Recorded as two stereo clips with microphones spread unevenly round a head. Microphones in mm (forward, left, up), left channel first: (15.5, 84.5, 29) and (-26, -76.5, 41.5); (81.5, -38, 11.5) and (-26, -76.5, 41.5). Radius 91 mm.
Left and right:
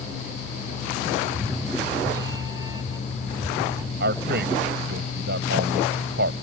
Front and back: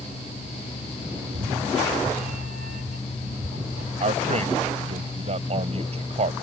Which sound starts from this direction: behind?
A cat meowing, at 1.2 s.